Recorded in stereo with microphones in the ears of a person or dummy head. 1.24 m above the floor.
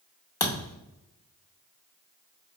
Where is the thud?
15° left (ahead or behind), 0.6 m.